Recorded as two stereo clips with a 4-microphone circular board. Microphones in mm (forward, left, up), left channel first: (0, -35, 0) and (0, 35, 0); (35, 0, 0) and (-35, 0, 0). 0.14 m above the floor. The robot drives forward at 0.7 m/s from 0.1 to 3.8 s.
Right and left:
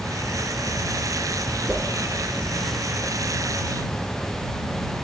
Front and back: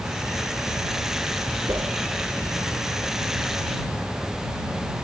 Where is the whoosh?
165° left, 1.0 m.